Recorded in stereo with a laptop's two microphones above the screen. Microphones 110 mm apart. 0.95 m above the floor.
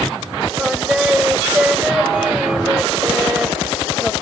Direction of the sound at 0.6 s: 5° right (ahead or behind).